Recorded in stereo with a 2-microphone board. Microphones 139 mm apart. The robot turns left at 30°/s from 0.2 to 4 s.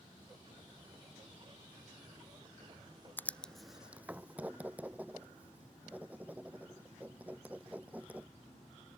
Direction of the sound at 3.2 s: 15° left (ahead or behind).